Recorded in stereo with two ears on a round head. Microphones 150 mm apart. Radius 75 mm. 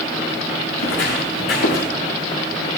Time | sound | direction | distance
0.8 | footsteps | 80° left | 6.5 m